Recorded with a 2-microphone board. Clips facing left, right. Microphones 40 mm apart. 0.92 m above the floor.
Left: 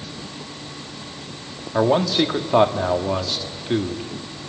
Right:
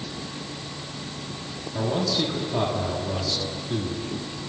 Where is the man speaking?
65° left (ahead or behind), 1.7 m.